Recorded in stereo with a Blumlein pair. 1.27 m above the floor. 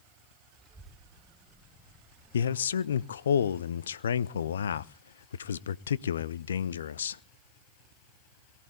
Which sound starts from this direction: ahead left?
A man speaking, at 2.3 s.